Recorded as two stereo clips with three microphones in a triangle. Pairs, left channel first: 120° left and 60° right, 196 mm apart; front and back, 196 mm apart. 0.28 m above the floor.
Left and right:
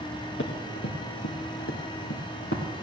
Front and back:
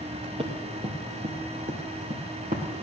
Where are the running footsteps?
120° left, 2 m; by 2.8 s 135° left, 3.5 m.